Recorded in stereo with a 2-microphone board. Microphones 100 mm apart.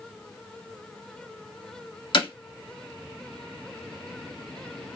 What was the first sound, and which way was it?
Hammering, 55° left (ahead or behind).